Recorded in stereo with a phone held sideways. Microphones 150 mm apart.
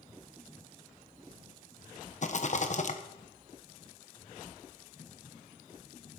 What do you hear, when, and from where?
2.2 s a rattle: 55° left (ahead or behind), 1.0 m